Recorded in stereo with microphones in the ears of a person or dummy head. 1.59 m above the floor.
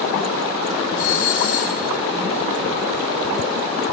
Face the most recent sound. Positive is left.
turn(degrees=75)  # may be behind; listen again after turning